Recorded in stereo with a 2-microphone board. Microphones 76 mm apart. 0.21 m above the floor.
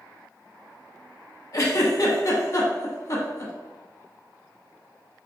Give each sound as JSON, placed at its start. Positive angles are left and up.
{"t": 1.5, "sound": "a giggle", "side_deg": 50, "distance_m": 0.6}